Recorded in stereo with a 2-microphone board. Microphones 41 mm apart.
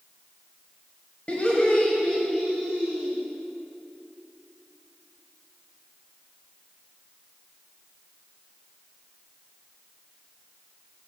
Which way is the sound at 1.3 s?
35° left (ahead or behind).